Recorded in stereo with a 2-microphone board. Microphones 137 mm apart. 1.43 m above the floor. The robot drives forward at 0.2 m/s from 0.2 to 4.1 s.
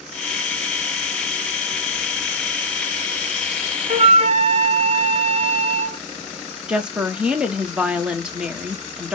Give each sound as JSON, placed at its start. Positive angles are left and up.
{"t": 3.9, "sound": "a flute", "side_deg": -50, "distance_m": 0.6}
{"t": 6.7, "sound": "a woman speaking", "side_deg": -5, "distance_m": 1.0}